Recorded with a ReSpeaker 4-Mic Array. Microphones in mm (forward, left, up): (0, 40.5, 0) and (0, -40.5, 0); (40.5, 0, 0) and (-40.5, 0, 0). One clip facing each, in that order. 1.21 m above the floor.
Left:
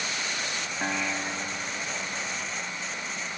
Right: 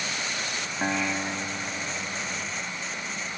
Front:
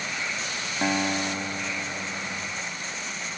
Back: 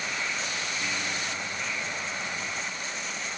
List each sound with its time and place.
0.8 s a guitar: 10° right